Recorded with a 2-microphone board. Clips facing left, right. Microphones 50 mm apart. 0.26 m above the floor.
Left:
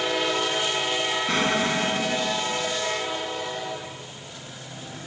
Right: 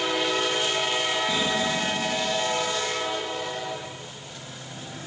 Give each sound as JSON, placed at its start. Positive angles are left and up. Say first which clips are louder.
{"t": 1.3, "sound": "an explosion", "louder": "left 2 dB", "side_deg": 60}